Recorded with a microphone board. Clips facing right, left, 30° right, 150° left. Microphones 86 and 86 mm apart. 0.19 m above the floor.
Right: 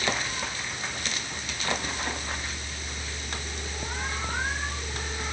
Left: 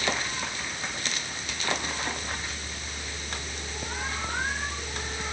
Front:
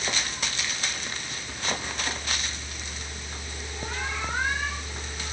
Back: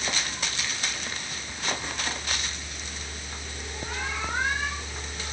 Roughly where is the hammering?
No hammering in this recording.